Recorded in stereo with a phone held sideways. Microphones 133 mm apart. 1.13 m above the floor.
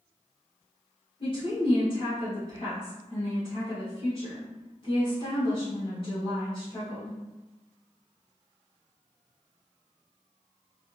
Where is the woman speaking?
40° left (ahead or behind), 1.4 m.